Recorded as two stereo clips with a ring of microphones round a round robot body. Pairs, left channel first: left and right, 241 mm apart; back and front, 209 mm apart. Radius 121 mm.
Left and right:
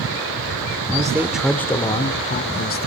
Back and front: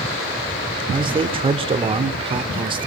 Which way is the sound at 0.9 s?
40° right.